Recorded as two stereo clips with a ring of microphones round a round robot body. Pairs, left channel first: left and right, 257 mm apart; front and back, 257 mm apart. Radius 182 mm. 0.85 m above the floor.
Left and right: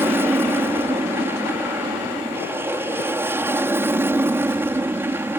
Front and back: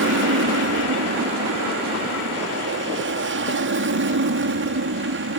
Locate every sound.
0.0 s an aircraft: 170° right